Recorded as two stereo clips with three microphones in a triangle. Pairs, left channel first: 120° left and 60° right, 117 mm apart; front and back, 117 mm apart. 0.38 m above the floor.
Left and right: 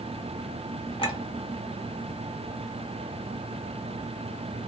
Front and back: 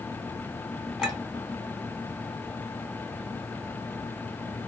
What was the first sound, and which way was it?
A clink, 90° left.